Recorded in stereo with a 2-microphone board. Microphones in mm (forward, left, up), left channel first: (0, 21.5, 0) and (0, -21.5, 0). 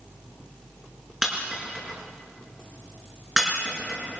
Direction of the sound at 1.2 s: 10° right (ahead or behind).